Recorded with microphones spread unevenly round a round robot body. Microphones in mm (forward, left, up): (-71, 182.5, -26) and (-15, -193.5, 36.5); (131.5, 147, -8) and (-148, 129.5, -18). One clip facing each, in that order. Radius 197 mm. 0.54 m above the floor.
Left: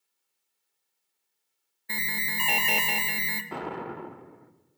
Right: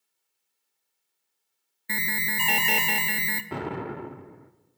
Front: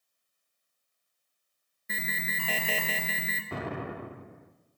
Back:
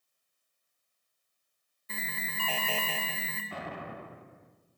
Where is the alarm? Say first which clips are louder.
Right 4 dB, front 3 dB; 40° right, 0.5 m.